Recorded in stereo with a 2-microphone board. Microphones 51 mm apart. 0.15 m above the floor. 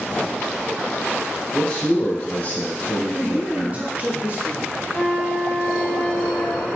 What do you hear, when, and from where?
1.5 s a man speaking: 25° left (ahead or behind), 1.4 m; by 3.9 s 55° left (ahead or behind), 2.5 m
3.1 s a man speaking: 30° right (ahead or behind), 1.6 m
4.9 s a flute: 55° left (ahead or behind), 2.0 m